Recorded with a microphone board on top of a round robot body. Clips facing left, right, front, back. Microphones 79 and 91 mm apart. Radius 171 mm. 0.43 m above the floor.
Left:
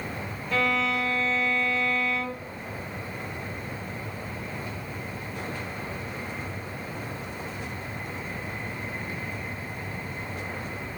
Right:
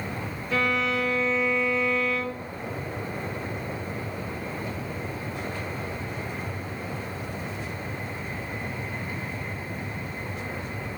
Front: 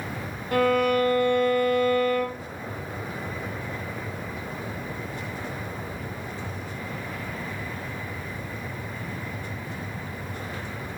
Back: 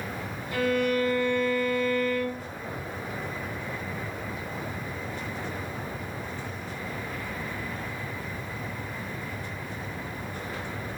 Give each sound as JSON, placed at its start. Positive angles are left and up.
{"t": 0.5, "sound": "a violin", "azimuth_deg": -5, "distance_m": 2.0}